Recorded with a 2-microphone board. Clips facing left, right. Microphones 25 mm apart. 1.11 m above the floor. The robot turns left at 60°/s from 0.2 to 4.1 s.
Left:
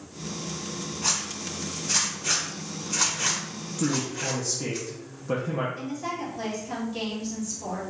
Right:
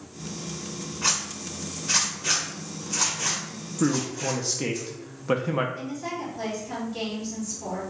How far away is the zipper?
About 1.0 m.